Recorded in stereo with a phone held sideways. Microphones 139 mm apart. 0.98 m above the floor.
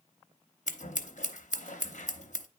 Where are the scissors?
60° left (ahead or behind), 0.7 m.